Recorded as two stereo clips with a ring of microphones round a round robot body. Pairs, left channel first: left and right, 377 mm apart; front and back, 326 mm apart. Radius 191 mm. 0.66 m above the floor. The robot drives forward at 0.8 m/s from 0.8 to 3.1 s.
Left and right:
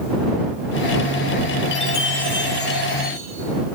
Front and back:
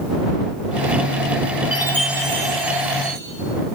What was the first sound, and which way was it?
A chime, 60° left.